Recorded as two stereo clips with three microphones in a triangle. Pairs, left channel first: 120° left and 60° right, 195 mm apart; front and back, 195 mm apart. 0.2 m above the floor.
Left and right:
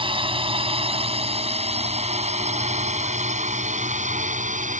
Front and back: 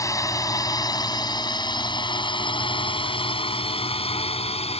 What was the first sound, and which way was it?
A drone, 50° right.